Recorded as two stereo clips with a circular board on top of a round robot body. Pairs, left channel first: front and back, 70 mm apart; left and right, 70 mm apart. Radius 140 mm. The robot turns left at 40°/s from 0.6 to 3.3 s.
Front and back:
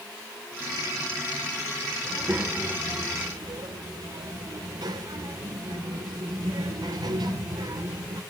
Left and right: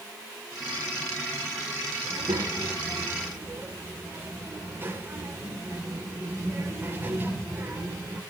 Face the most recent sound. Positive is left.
turn(degrees=-150)